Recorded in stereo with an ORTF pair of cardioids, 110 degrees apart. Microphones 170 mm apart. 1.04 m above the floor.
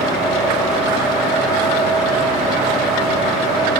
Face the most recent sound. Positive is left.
turn(degrees=-5)